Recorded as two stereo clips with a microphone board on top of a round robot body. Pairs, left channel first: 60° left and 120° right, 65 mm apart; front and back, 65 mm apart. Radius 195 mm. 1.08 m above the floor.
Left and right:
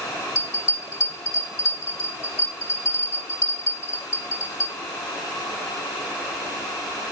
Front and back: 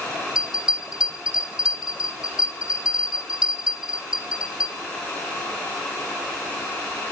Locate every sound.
0.3 s a bell: 105° left, 2.5 m